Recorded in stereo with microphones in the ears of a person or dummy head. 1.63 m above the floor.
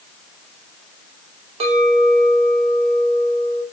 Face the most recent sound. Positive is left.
turn(degrees=-35)  # may be behind; listen again after turning